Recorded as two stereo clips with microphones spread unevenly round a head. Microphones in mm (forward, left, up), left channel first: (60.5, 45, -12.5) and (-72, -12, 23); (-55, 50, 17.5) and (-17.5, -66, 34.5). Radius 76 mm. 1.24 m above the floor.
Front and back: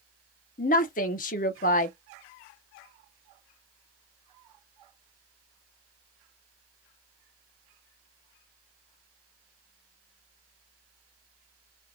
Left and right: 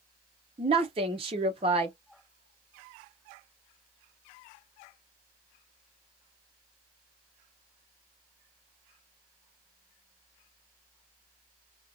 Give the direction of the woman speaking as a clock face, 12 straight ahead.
1 o'clock.